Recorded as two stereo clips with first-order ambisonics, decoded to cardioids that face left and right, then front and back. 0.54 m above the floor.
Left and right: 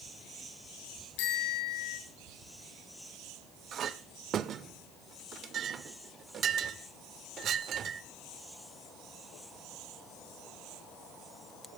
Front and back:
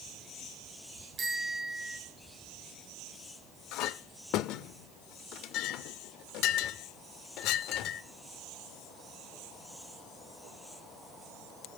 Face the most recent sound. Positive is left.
turn(degrees=-35)